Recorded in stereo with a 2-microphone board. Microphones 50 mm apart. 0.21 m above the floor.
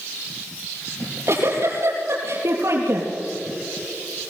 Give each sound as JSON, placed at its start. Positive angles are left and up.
{"t": 1.0, "sound": "a giggle", "side_deg": -60, "distance_m": 4.0}